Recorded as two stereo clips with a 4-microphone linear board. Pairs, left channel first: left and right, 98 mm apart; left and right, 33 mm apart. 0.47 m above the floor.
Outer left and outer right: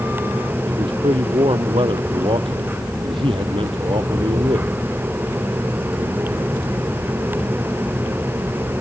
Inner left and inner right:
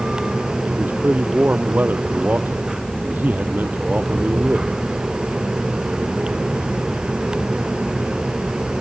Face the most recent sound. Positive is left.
turn(degrees=-75)  # may be behind; listen again after turning